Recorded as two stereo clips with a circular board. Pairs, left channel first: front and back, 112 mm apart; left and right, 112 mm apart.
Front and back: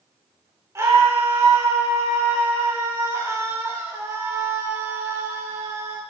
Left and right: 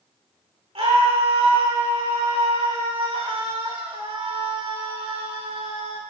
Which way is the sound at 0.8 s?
120° right.